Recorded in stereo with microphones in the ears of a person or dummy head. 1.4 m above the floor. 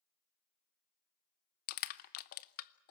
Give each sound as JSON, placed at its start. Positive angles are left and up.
{"t": 1.7, "sound": "crushing", "side_deg": 50, "distance_m": 0.7}